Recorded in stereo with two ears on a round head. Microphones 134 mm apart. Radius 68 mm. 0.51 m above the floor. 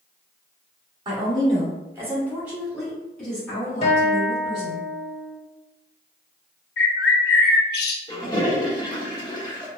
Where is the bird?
80° left, 0.5 m.